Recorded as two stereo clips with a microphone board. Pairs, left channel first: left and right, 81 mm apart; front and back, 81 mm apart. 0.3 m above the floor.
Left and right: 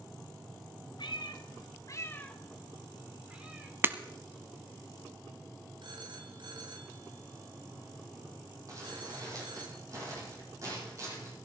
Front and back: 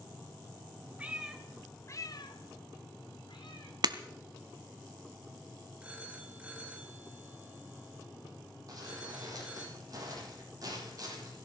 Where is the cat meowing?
105° left, 1.7 m; by 3.7 s 20° right, 3 m.